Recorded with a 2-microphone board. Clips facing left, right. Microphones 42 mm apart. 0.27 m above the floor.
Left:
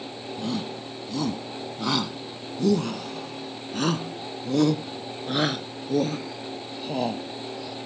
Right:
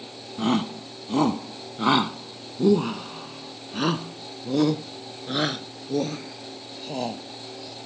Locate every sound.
0.4 s a shout: 55° right (ahead or behind); by 7.8 s 10° left (ahead or behind)